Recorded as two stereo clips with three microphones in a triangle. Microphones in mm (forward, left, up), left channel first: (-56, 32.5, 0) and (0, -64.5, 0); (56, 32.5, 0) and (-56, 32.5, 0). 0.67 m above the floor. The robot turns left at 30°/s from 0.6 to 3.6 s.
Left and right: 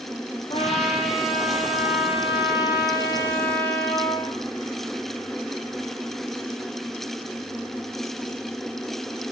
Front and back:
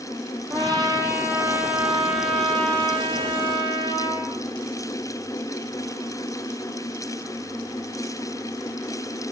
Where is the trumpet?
135° left, 6.5 m; by 4.3 s 45° left, 6.5 m.